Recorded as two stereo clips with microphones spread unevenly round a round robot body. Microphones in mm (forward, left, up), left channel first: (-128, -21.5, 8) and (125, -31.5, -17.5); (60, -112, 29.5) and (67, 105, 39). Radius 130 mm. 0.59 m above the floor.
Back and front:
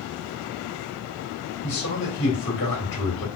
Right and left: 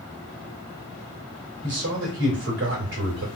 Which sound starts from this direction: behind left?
A man speaking, at 1.6 s.